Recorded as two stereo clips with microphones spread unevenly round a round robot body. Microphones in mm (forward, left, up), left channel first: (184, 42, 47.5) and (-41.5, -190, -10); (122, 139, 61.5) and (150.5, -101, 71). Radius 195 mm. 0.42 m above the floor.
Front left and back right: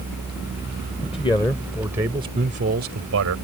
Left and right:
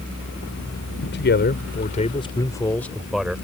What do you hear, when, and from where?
1.0 s a man speaking: 120° left; by 3.4 s 170° right